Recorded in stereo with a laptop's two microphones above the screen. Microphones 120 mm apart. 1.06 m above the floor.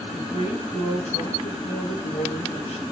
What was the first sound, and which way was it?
A woman speaking, 85° left.